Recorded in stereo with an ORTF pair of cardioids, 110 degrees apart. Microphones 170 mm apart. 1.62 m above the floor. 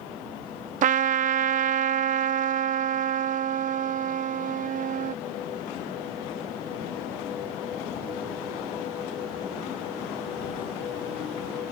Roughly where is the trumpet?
Ahead right.